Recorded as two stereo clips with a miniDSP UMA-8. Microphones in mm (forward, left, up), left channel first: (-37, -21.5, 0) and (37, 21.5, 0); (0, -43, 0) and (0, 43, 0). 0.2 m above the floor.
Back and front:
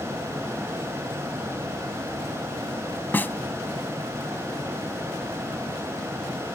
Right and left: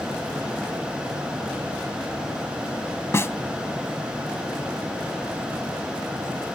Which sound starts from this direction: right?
A snare drum, at 3.1 s.